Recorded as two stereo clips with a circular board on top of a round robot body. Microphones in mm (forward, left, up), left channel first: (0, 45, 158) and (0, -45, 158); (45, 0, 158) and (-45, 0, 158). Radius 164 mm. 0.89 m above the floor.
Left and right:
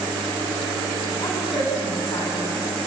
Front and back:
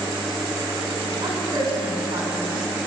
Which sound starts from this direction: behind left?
A woman speaking, at 1.2 s.